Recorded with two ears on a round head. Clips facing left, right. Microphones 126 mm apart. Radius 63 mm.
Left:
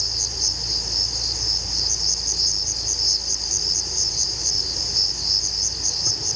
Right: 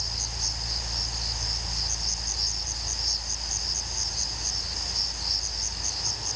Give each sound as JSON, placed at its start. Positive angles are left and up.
{"t": 0.0, "sound": "an insect", "side_deg": 65}